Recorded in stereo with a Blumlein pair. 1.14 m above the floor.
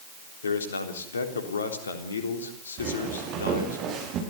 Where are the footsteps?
35° right, 8 m.